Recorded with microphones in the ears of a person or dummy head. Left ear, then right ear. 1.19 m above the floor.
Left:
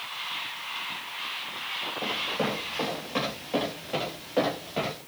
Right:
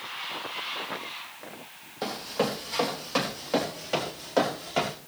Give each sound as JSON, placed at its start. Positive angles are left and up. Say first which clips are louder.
{"t": 2.0, "sound": "running footsteps", "louder": "right 2 dB", "side_deg": -45, "distance_m": 4.0}